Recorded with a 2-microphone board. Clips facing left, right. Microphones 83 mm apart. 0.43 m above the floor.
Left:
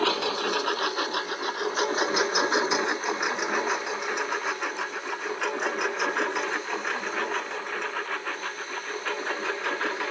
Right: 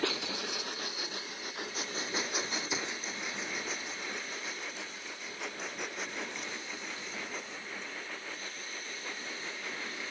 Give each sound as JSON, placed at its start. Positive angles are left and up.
{"t": 0.0, "sound": "a lawn mower", "side_deg": 70}